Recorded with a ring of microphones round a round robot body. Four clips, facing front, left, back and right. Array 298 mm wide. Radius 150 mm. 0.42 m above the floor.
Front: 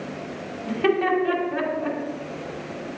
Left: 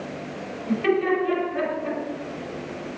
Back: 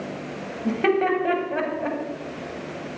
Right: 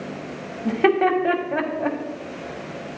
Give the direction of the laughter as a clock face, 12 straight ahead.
4 o'clock.